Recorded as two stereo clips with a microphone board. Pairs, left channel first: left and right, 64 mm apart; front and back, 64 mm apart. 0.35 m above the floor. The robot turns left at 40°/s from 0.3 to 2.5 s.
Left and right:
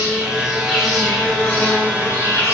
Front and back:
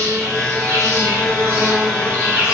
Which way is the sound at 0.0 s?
160° right.